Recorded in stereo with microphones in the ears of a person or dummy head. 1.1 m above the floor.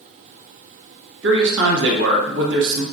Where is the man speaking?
50° right (ahead or behind), 0.8 m.